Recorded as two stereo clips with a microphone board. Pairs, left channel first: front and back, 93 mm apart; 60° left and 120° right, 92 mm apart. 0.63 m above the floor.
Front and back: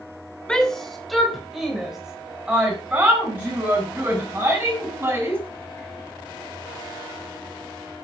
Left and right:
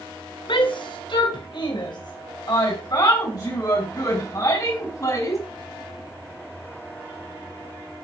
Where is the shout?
80° left, 2.5 m; by 5.4 s 110° left, 6 m.